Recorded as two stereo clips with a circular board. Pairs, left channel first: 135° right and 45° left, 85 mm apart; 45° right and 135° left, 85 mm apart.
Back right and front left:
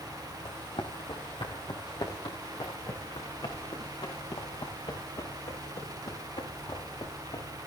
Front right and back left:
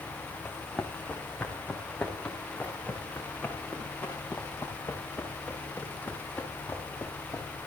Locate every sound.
0.5 s running footsteps: 130° right, 3.5 m; by 7.5 s 110° right, 8 m